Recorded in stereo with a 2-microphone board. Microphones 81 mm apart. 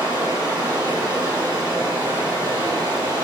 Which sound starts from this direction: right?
Running water, at 0.0 s.